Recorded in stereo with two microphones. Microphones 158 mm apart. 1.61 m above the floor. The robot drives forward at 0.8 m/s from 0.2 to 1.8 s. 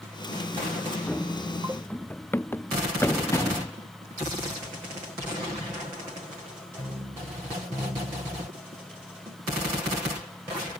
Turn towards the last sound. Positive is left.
turn(degrees=20)  # may be behind; listen again after turning